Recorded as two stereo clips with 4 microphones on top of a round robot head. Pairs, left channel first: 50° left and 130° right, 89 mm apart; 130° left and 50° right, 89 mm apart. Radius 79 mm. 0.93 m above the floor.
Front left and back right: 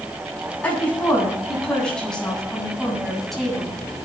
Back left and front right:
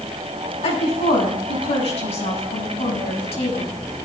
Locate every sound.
0.6 s a woman speaking: 125° left, 8.5 m; by 3.7 s 135° left, 7 m